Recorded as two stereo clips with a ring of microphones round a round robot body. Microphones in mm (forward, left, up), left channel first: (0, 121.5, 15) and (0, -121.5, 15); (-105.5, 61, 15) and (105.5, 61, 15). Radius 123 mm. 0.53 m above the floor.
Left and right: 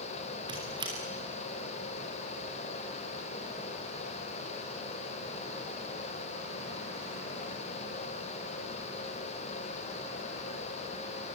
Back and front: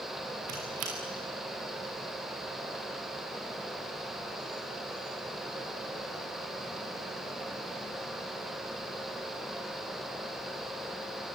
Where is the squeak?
20° right, 4.5 m.